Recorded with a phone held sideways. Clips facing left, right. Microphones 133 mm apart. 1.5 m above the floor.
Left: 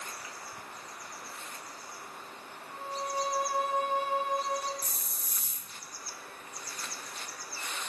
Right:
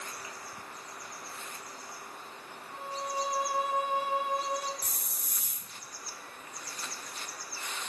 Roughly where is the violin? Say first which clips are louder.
Left 1 dB; centre.